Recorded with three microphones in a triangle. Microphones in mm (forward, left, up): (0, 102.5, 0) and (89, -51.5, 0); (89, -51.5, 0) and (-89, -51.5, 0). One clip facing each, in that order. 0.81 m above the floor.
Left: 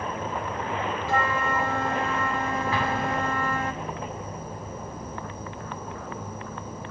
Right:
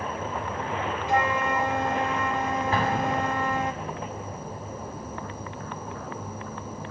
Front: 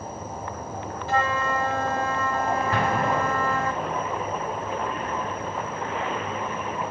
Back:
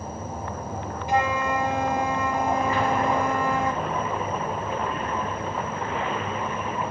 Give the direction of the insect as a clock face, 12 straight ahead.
5 o'clock.